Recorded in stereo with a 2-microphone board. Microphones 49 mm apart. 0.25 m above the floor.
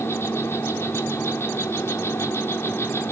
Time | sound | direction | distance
0.0 | an insect | 50° left (ahead or behind) | 2.5 m